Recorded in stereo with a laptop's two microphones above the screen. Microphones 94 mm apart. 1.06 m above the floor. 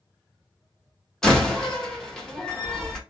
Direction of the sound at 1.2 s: 10° left (ahead or behind).